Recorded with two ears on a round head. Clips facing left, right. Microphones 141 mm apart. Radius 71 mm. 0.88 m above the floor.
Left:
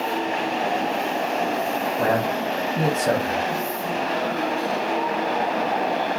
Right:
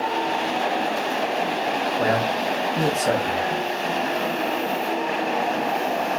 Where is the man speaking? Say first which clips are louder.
Left 1 dB; 5° right (ahead or behind), 0.7 m.